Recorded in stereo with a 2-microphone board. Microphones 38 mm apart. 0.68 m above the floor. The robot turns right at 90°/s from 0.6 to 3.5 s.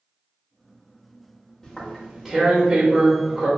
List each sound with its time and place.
1.6 s tearing paper: 10° left (ahead or behind), 0.8 m; by 3.5 s 15° right (ahead or behind), 0.8 m